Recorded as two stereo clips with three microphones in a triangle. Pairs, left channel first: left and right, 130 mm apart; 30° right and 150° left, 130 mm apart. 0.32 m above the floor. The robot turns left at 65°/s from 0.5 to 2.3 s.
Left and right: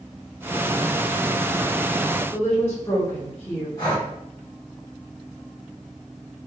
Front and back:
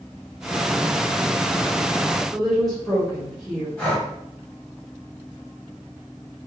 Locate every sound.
2.3 s a woman speaking: 55° left, 1.5 m
3.8 s breathing: 50° left, 1.6 m